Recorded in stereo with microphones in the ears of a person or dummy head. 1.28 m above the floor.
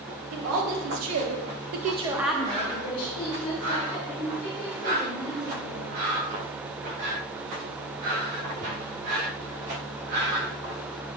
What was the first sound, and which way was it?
A woman speaking, 75° right (ahead or behind).